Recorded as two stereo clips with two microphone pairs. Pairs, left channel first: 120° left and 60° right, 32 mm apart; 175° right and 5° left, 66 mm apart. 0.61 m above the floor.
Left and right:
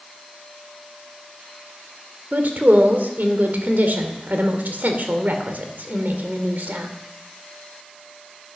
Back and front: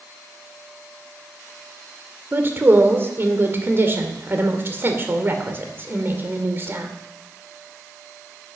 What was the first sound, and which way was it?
A woman speaking, 45° right.